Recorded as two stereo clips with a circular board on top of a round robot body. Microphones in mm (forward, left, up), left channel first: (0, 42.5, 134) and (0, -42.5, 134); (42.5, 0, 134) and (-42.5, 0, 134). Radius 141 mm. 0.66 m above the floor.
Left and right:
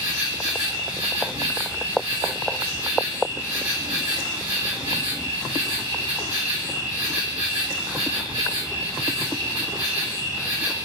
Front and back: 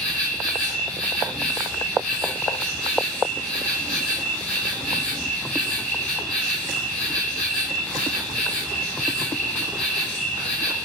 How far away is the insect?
About 1.1 m.